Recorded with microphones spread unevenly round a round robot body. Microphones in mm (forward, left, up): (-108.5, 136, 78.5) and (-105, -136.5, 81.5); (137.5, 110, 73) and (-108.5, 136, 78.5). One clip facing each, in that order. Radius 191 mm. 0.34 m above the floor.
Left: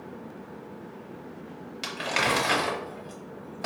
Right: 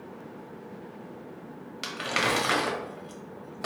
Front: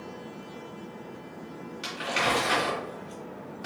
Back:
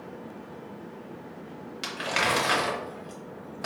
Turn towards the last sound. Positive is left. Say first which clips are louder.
# even, even
turn(degrees=-160)